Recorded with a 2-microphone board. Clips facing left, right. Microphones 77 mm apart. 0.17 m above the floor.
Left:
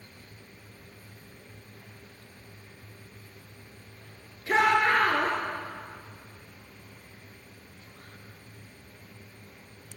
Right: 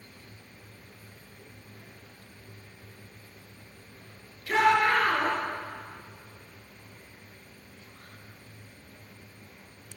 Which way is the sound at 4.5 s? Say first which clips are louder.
Even; 25° left (ahead or behind).